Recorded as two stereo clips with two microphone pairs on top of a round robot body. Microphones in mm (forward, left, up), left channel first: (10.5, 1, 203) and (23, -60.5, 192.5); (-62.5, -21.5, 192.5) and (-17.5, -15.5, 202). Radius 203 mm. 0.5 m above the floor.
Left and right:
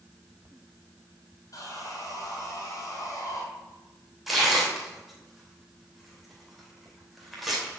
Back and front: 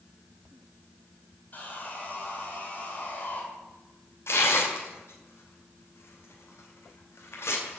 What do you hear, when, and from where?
1.5 s sawing: 135° left, 3 m
4.3 s tearing paper: 165° right, 2.5 m